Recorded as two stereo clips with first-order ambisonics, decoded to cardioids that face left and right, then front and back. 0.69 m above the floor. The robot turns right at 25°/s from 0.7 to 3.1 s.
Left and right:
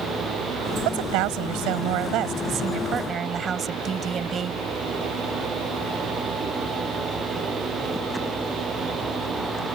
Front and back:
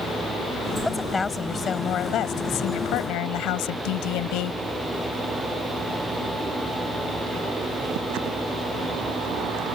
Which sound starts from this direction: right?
A woman speaking, at 0.8 s.